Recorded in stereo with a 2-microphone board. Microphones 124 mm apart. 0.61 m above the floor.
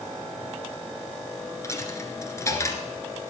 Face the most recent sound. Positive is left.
turn(degrees=25)  # may be behind; listen again after turning